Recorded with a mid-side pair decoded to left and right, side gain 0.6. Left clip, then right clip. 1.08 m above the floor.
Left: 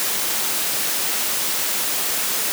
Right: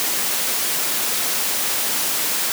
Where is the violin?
I don't hear a violin.